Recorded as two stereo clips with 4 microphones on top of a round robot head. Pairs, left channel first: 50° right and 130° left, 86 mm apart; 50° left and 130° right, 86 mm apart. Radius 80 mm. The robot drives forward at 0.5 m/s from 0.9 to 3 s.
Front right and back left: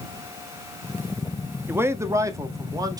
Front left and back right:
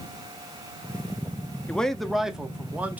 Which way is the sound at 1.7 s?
110° left.